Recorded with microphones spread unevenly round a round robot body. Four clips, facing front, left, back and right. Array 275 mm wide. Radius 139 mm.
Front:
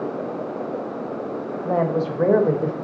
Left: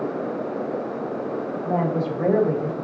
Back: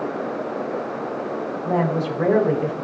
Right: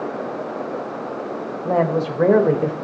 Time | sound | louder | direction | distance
1.6 | a woman speaking | right 5 dB, front 1 dB | 80° right | 4 m